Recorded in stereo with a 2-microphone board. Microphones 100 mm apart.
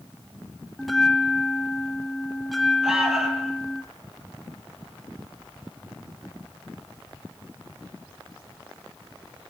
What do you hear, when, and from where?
0.8 s a bell: centre (ahead or behind), 1.2 m
2.8 s an alarm: 5° right (ahead or behind), 5.5 m